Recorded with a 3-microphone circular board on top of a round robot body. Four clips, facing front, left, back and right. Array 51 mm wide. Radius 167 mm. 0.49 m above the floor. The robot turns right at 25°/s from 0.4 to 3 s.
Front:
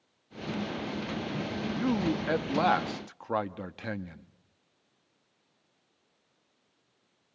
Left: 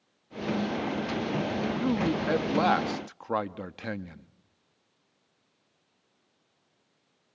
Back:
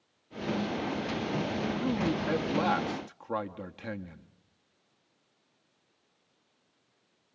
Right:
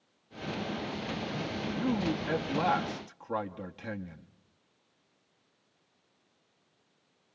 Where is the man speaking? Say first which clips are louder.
Left 2 dB, front 4 dB; 25° left, 1.0 m; by 4.3 s 55° left, 1.0 m.